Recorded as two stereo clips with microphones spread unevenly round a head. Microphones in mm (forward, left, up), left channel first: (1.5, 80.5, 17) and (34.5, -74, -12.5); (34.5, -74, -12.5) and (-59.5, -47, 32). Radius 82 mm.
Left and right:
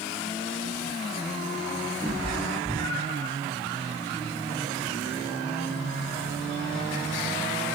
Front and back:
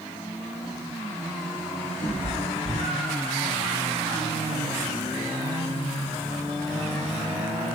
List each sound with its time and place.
2.0 s a cat meowing: 35° left, 5.5 m